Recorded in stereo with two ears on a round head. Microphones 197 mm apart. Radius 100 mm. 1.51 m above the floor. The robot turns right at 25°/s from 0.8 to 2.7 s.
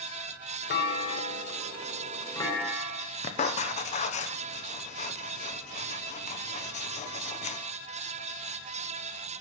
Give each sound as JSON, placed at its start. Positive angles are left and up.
{"t": 0.7, "sound": "a clunk", "azimuth_deg": 125, "distance_m": 3.0}
{"t": 3.2, "sound": "writing", "side_deg": 35, "distance_m": 1.0}